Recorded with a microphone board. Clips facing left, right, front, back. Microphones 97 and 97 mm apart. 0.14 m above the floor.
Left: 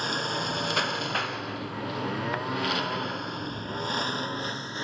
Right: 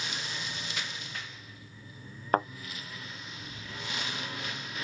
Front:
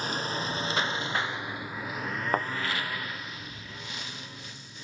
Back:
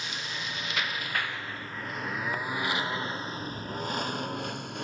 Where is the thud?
40° right.